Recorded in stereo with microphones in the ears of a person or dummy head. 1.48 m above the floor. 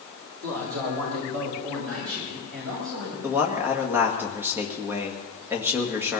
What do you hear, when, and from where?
0.4 s a man speaking: 75° right (ahead or behind), 4.5 m; by 3.1 s 80° right, 8.5 m
3.2 s a man speaking: 10° right (ahead or behind), 2.0 m